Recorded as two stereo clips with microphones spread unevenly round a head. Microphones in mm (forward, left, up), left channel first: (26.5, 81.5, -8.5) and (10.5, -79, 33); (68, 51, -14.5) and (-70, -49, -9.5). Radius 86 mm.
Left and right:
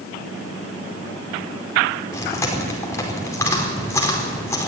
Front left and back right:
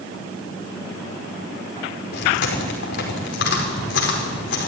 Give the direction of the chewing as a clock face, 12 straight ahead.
12 o'clock.